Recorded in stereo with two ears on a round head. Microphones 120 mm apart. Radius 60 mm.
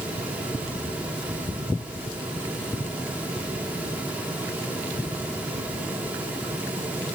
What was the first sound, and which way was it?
Only background noise.